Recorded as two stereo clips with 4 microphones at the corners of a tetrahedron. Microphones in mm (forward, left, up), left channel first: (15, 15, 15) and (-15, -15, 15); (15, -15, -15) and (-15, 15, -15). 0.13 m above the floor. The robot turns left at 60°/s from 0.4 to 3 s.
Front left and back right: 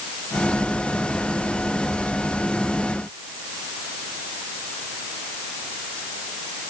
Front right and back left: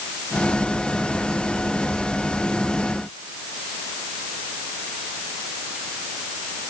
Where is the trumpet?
I don't hear a trumpet.